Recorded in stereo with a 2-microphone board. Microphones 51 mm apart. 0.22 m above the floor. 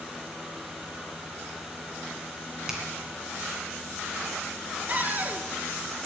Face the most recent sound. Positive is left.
turn(degrees=-35)  # may be behind; listen again after turning